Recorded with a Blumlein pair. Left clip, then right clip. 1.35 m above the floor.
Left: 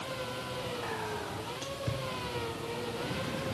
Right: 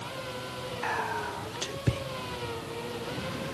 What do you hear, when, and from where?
0.8 s whispering: 65° right, 1.4 m